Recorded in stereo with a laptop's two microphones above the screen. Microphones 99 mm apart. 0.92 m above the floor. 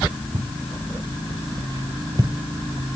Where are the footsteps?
60° right (ahead or behind), 2.5 m; by 2.3 s 35° right (ahead or behind), 1.1 m.